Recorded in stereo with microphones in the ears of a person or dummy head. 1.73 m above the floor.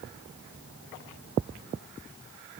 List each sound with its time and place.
Only background noise.